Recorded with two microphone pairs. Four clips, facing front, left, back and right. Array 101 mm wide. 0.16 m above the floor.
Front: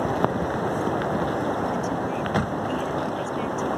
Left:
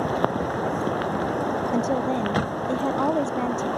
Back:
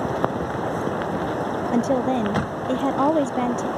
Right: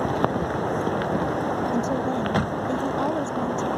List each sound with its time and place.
1.7 s a woman speaking: 175° left